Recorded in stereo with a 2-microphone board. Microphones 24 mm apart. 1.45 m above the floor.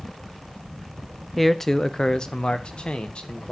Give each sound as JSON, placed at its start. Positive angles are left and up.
{"t": 1.4, "sound": "a man speaking", "side_deg": 5, "distance_m": 0.7}